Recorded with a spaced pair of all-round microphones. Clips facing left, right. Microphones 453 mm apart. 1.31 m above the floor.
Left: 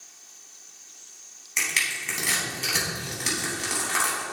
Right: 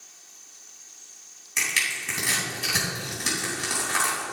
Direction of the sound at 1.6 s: 25° right (ahead or behind).